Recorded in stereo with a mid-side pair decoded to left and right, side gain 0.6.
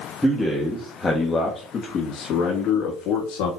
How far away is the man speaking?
About 1.6 m.